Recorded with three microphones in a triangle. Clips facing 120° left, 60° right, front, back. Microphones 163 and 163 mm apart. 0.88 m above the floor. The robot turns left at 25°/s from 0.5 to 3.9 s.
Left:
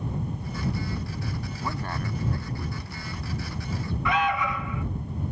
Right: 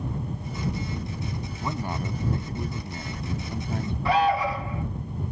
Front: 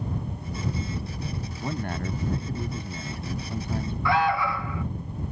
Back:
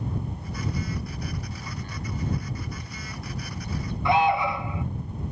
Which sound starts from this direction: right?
An alarm, at 4.0 s.